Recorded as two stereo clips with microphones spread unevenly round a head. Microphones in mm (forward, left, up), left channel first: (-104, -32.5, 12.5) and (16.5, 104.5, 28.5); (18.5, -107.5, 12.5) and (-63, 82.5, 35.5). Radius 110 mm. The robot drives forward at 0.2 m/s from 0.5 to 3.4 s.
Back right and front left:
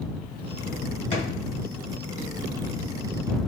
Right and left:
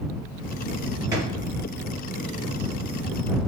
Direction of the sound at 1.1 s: 175° left.